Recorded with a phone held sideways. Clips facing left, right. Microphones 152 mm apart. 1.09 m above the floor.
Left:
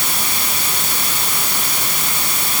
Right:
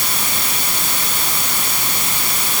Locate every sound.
Only background noise.